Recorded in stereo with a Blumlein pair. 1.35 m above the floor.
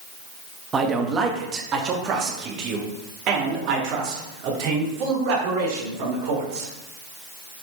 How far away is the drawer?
No drawer in this recording.